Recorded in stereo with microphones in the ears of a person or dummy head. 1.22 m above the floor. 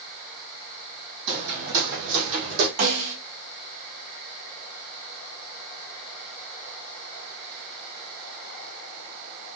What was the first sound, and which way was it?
Footsteps, 60° right (ahead or behind).